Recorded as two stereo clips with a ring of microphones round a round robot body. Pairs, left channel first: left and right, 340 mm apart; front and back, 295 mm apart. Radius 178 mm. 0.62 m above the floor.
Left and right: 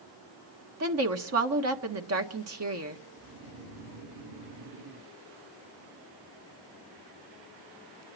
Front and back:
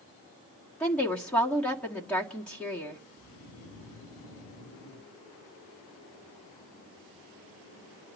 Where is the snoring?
35° right, 2.5 m.